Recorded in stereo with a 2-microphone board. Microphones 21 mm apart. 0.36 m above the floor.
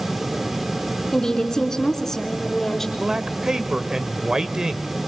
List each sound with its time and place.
1.1 s a woman speaking: 25° left (ahead or behind), 3.5 m; by 2.9 s 15° left (ahead or behind), 4 m
3.0 s a man speaking: 35° right (ahead or behind), 1.2 m